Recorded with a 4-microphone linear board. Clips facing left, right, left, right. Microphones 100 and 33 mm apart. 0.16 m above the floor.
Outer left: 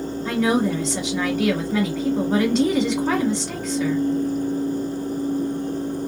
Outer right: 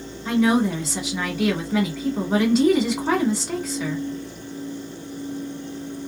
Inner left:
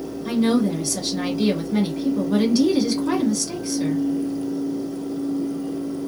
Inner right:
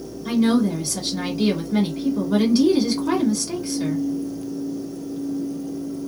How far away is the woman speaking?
About 1.2 m.